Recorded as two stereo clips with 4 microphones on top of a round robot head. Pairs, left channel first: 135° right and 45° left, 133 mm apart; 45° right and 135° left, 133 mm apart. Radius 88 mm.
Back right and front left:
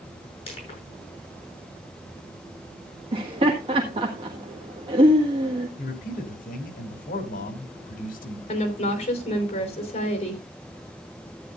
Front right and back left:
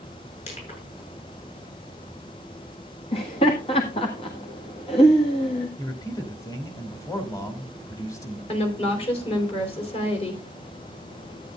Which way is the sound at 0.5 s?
85° right.